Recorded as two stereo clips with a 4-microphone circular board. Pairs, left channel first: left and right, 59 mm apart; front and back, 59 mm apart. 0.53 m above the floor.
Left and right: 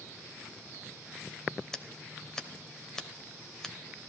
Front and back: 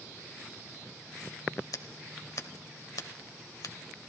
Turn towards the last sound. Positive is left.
turn(degrees=10)